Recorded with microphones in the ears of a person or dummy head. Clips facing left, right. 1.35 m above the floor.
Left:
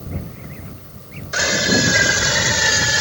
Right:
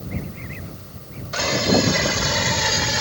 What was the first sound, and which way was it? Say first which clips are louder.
A scream: right 1 dB; 25° left (ahead or behind).